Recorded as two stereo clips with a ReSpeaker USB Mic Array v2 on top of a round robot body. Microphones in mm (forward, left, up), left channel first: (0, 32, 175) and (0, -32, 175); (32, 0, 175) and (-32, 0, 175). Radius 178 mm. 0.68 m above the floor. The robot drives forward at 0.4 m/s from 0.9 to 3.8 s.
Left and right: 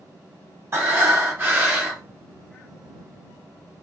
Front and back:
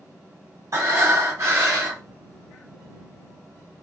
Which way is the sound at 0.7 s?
140° right.